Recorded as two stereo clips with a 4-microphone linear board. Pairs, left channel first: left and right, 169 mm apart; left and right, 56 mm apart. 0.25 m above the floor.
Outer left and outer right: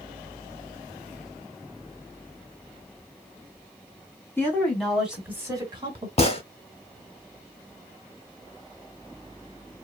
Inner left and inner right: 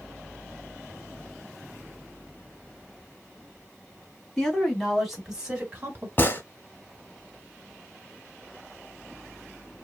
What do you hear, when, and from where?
4.4 s a woman speaking: 15° left (ahead or behind), 1.7 m; by 6.1 s 35° right (ahead or behind), 1.3 m
6.2 s a gunshot: 40° left (ahead or behind), 0.7 m